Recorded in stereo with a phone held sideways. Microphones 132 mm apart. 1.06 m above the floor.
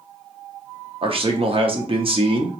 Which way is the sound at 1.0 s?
45° right (ahead or behind).